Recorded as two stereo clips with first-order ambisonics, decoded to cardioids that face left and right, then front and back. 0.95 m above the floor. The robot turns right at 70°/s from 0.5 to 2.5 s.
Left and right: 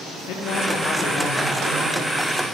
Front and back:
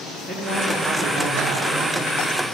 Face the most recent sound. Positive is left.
turn(degrees=-110)